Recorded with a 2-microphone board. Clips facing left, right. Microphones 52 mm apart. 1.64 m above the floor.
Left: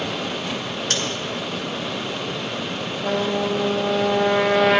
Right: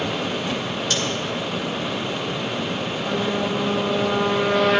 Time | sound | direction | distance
0.9 | scissors | 60° left (ahead or behind) | 1.4 m
3.0 | a trumpet | 60° left (ahead or behind) | 0.9 m